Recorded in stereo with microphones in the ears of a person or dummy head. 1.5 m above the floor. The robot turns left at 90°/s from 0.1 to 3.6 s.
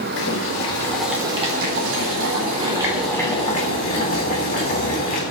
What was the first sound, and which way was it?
Boiling, 70° left.